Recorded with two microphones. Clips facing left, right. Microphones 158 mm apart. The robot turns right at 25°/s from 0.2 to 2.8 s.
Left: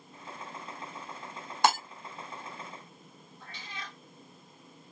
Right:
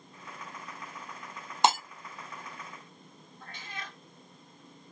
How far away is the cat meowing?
About 1.3 m.